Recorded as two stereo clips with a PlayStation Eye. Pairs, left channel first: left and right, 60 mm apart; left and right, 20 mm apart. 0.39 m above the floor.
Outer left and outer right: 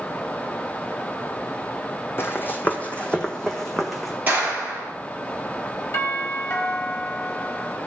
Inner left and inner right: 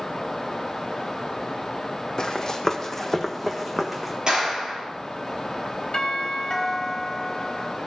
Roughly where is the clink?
No clink in this recording.